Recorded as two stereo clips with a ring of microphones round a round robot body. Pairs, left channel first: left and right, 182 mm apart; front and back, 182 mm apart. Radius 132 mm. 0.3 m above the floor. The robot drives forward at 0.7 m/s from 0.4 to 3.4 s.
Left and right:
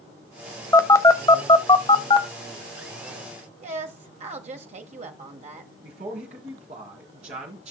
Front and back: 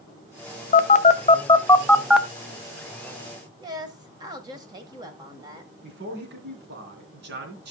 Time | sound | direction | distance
0.7 | a phone buzzing | 20° left | 1.2 m
3.6 | a woman speaking | 120° right | 1.6 m
5.8 | a man speaking | 150° right | 3 m